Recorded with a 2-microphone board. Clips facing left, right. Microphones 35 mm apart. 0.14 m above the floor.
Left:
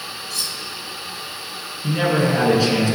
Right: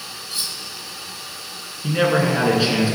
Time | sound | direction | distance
0.3 | cutlery clinking | 25° right (ahead or behind) | 0.9 m
1.8 | a man speaking | 15° right (ahead or behind) | 1.3 m